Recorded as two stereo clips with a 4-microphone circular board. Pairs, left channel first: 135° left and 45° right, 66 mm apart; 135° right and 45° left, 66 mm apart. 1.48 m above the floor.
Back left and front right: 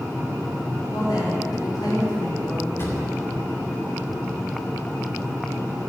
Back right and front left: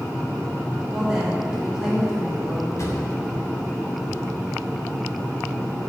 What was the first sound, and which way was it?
A woman speaking, 135° left.